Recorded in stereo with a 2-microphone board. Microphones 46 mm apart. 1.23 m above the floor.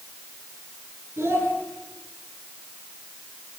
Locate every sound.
1.2 s a child speaking: 75° right (ahead or behind), 10 m